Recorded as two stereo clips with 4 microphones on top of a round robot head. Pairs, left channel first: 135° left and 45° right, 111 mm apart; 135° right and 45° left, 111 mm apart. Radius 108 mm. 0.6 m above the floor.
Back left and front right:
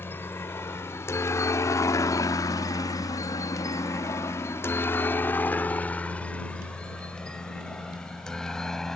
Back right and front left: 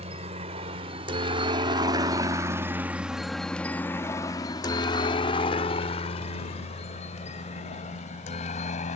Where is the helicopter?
65° left; by 9.0 s 140° right.